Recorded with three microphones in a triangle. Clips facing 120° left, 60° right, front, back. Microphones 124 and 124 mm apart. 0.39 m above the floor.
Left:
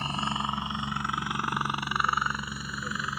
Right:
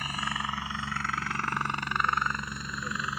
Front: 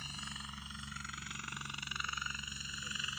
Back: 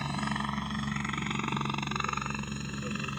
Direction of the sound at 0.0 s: Straight behind.